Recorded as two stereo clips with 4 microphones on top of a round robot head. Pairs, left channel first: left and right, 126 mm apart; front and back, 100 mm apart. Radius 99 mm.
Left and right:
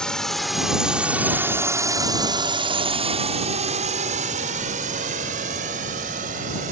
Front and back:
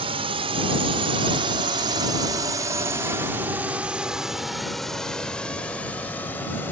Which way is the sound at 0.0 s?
175° left.